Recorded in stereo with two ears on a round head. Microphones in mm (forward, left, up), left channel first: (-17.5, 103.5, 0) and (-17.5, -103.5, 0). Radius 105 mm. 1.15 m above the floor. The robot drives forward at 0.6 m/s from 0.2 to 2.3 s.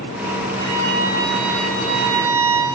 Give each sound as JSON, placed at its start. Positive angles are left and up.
{"t": 0.6, "sound": "a violin", "side_deg": -50, "distance_m": 4.0}